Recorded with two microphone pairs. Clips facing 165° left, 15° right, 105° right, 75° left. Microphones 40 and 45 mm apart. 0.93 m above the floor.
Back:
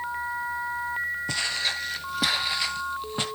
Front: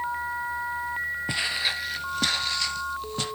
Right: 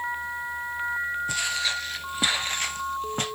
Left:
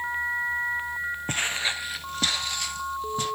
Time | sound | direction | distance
1.3 | footsteps | 50° left | 1.3 m